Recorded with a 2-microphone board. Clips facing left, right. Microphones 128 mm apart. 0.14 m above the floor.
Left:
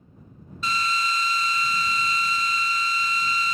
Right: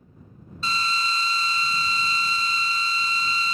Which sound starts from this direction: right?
A drill, at 0.6 s.